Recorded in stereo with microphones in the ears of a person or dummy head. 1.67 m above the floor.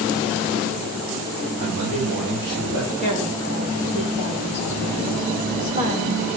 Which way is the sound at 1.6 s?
55° right (ahead or behind).